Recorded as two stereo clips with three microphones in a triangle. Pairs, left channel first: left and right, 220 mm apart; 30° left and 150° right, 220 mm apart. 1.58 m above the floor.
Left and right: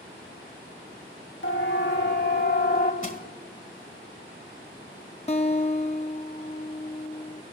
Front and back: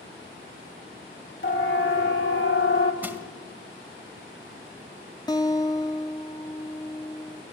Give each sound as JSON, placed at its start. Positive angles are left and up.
{"t": 1.4, "sound": "a siren", "azimuth_deg": 60, "distance_m": 2.5}
{"t": 3.0, "sound": "crushing", "azimuth_deg": 130, "distance_m": 1.9}
{"t": 5.3, "sound": "a guitar", "azimuth_deg": 80, "distance_m": 1.2}